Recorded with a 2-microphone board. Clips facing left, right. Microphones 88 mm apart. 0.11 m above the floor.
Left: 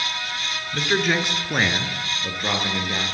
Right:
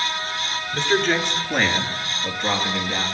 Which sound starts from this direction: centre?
A man speaking, at 0.7 s.